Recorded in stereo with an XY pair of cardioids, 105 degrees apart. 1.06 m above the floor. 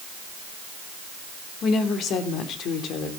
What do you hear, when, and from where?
1.6 s a woman speaking: 65° left, 3 m; by 3.1 s 80° left, 3 m